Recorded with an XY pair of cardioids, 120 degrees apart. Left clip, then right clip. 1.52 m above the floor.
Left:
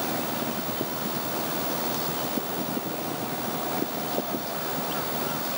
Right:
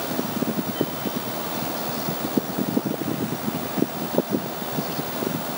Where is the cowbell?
No cowbell in this recording.